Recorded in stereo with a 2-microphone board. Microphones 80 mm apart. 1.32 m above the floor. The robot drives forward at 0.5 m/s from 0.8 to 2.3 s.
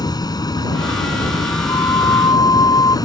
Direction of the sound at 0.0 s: 55° left (ahead or behind).